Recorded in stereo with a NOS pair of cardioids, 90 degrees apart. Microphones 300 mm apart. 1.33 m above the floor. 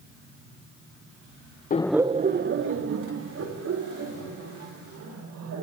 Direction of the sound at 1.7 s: 30° left.